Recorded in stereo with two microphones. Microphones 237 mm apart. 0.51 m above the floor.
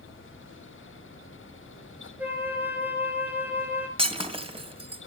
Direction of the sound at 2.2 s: 5° right (ahead or behind).